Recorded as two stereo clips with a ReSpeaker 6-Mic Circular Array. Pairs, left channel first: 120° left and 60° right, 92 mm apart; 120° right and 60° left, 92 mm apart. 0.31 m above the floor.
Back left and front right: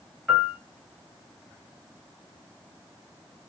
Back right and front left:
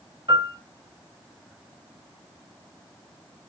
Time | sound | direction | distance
0.3 | a piano | 40° left | 1.9 m